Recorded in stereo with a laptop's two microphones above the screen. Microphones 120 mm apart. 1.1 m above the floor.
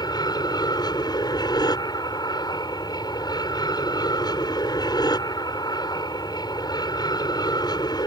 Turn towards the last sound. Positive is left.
turn(degrees=35)  # may be behind; listen again after turning